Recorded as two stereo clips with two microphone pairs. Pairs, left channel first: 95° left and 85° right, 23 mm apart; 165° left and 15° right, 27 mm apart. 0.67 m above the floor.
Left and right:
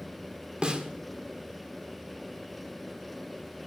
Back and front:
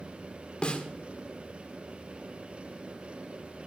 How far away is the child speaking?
No child speaking in this recording.